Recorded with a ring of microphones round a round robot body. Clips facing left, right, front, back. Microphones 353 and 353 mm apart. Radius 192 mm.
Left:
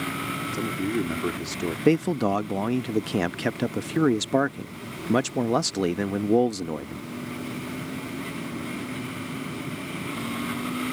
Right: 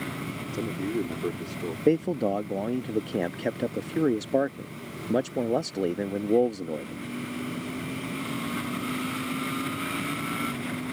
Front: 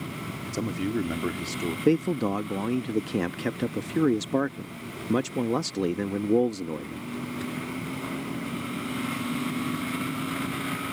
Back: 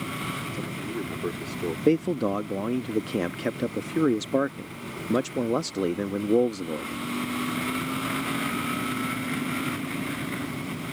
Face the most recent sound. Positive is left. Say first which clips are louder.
# left 2 dB, back 1 dB
turn(degrees=75)